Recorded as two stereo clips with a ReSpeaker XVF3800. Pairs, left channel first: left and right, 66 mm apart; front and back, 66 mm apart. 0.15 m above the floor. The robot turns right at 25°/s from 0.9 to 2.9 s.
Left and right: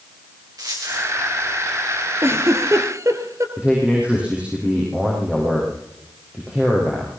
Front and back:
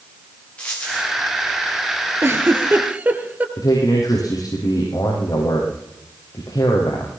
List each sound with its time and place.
0.6 s a dropped coin: 70° right, 6 m; by 1.1 s 65° right, 6 m
2.2 s a giggle: 135° right, 3 m; by 3.5 s 115° right, 3 m
3.6 s a man speaking: 20° right, 6.5 m